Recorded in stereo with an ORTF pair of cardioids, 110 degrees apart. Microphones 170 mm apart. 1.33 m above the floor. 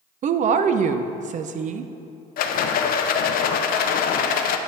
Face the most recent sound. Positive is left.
turn(degrees=65)